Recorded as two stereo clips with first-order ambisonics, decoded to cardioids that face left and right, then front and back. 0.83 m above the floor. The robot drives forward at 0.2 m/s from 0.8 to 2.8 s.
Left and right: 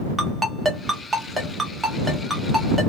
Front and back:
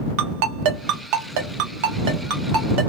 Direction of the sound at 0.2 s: 170° right.